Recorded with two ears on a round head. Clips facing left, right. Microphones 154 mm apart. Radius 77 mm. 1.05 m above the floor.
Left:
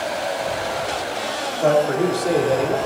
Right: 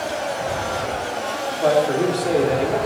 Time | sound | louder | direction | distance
1.6 | a man speaking | even | centre (ahead or behind) | 2 m